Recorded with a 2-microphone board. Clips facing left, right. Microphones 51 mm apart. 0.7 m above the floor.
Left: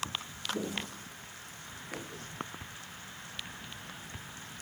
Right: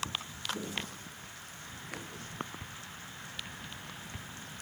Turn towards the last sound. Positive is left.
turn(degrees=15)  # may be behind; listen again after turning